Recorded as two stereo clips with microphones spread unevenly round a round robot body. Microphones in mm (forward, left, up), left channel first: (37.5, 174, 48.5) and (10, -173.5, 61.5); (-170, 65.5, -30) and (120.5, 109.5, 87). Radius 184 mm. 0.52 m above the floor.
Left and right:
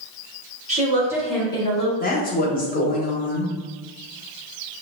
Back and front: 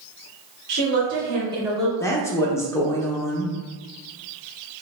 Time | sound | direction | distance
0.7 | a woman speaking | 30° right | 1.4 m
2.0 | a woman speaking | 140° left | 0.9 m